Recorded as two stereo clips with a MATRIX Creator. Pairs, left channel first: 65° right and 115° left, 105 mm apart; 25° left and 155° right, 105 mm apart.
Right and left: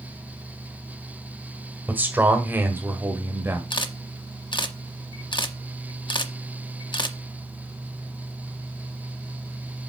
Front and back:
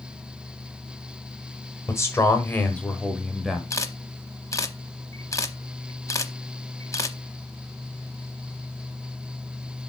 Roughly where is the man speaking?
Ahead left.